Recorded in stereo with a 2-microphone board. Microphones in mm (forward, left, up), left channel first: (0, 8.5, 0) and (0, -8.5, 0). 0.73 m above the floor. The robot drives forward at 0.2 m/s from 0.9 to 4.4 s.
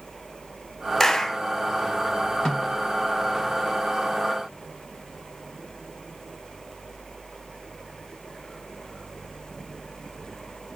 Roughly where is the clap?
Left.